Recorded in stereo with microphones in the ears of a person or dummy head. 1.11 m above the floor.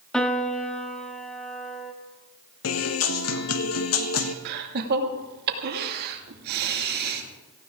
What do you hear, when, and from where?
0.1 s a piano: 5° left (ahead or behind), 1.5 m
2.6 s a guitar: 75° left (ahead or behind), 1.2 m
4.5 s laughter: 55° right (ahead or behind), 2 m